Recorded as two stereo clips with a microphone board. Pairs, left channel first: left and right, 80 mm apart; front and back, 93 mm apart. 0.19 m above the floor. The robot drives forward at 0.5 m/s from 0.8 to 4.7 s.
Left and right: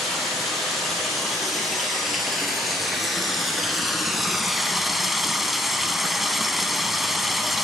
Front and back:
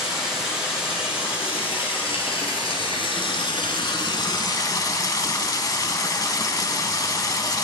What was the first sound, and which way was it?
Running water, straight ahead.